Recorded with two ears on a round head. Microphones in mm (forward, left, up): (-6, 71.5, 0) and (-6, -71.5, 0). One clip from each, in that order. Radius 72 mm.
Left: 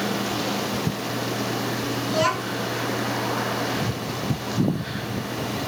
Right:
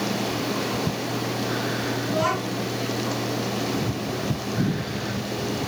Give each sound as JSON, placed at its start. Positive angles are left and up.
{"t": 2.1, "sound": "a child speaking", "side_deg": 70, "distance_m": 5.0}